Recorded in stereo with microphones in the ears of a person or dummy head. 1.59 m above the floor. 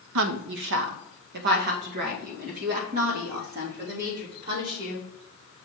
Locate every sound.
0.1 s a woman speaking: 80° right, 0.7 m; by 5.1 s 55° right (ahead or behind), 4 m